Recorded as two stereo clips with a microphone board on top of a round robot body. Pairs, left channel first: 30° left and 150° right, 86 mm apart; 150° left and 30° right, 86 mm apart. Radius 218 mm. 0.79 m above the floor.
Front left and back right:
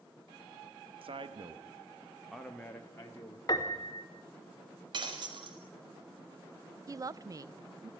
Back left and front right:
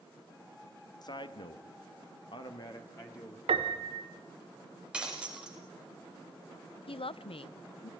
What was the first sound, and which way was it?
A man speaking, 170° right.